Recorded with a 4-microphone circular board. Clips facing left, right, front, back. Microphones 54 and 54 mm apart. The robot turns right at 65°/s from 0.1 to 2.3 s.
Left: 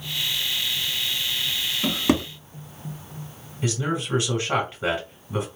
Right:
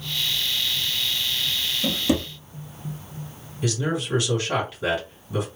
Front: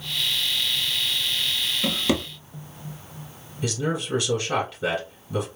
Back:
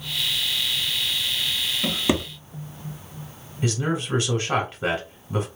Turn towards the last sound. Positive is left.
turn(degrees=140)